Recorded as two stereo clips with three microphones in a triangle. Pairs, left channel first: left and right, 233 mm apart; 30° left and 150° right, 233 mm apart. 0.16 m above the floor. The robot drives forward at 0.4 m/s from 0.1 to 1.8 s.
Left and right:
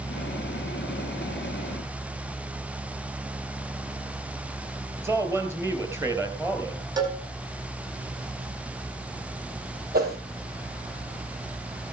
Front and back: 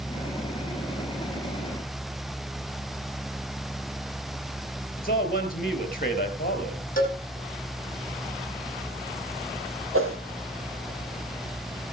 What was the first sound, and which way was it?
A man speaking, 15° right.